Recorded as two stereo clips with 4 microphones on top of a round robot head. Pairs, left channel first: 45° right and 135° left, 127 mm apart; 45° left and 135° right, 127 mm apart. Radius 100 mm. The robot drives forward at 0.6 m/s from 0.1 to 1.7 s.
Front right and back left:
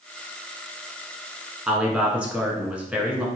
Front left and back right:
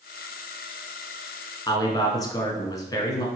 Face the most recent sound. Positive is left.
turn(degrees=65)